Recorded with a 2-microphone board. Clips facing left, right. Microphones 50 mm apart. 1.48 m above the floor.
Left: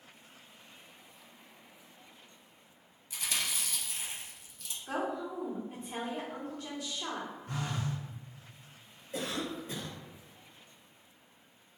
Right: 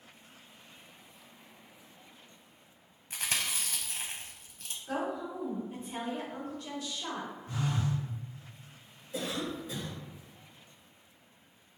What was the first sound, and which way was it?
Chewing, 50° right (ahead or behind).